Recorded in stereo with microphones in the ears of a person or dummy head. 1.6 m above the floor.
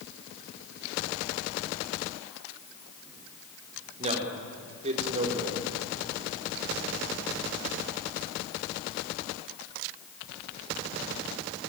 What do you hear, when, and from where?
4.0 s a man speaking: 35° right (ahead or behind), 5 m